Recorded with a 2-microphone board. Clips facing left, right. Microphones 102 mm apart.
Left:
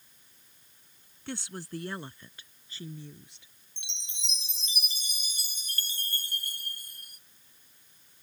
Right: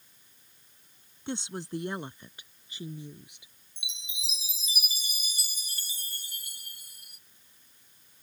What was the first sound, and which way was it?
A woman speaking, 25° right (ahead or behind).